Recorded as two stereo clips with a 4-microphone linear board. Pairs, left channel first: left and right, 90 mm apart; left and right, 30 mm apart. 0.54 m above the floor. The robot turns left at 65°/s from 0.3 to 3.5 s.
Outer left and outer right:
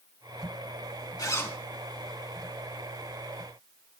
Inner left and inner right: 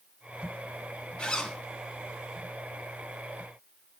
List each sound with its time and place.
1.2 s a zipper: 40° left (ahead or behind), 2.5 m; by 1.6 s 15° left (ahead or behind), 2.5 m